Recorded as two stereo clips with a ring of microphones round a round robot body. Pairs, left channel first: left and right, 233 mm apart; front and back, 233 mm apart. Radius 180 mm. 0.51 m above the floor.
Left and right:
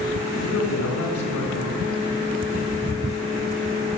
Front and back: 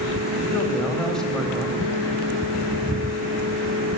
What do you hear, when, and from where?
0.4 s a man speaking: 85° left, 4 m